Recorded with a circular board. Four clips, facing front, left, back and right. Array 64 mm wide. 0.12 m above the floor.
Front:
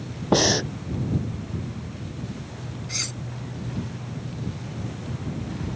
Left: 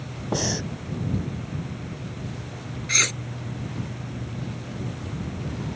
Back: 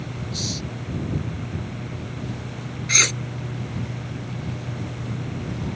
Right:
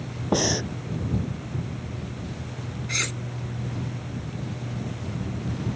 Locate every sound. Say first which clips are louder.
0.3 s breathing: right 3 dB, front 15 dB; 10° right
2.9 s cutlery clinking: left 5 dB, back 12 dB; 155° left